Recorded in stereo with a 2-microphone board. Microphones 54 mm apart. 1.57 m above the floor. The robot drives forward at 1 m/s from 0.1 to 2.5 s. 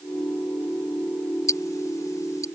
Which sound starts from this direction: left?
Ticking, at 1.5 s.